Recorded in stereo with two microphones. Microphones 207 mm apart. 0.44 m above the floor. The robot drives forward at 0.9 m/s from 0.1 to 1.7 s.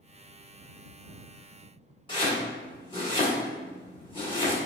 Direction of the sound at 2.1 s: 25° left (ahead or behind).